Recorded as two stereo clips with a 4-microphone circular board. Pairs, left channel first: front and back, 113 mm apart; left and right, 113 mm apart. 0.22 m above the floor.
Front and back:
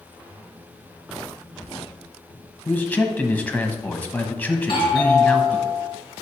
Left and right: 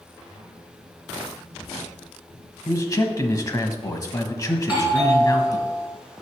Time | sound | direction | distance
2.6 | a man speaking | 60° left | 1.1 m
4.6 | a doorbell | 20° right | 2.5 m